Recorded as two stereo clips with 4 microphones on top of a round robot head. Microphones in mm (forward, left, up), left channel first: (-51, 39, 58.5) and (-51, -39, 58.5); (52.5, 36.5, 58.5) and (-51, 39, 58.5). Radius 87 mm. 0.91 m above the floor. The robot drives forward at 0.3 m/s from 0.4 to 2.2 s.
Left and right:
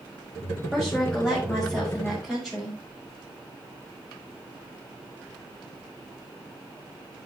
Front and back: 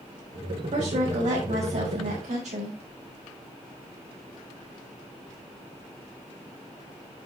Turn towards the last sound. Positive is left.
turn(degrees=180)